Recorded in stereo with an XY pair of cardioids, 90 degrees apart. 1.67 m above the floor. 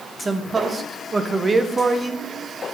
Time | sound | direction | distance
0.2 | a man speaking | 30° right | 1.0 m